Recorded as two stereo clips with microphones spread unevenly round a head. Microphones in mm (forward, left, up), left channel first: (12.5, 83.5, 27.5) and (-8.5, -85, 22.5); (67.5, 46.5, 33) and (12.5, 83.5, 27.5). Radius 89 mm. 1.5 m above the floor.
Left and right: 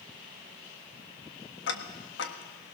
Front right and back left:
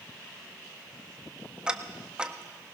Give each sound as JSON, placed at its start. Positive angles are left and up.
{"t": 1.7, "sound": "ticking", "azimuth_deg": 70, "distance_m": 1.4}